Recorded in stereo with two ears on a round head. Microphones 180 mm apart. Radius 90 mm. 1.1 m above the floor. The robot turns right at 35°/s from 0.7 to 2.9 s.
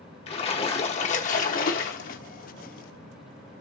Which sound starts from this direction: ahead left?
A splash, at 0.3 s.